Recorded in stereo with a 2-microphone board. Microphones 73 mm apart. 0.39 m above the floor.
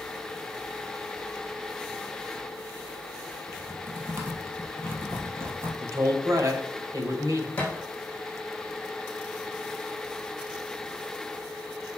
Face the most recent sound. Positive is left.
turn(degrees=20)  # may be behind; listen again after turning